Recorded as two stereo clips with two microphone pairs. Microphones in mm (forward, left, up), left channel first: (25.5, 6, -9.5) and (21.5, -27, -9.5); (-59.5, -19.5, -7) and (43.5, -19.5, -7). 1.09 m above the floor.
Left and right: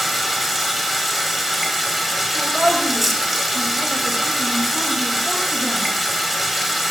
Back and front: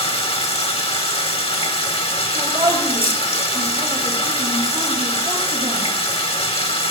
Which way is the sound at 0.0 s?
175° left.